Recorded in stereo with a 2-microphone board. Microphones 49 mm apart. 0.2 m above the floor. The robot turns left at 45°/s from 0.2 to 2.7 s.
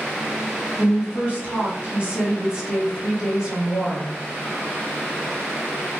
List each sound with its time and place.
0.8 s a woman speaking: 25° right (ahead or behind), 1.4 m; by 4.1 s 15° right (ahead or behind), 1.4 m